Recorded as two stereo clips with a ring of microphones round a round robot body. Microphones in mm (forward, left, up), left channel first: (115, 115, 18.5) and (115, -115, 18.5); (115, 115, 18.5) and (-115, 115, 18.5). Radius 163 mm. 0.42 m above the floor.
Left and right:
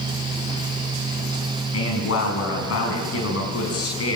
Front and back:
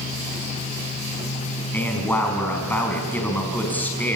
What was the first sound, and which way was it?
A man speaking, 80° left.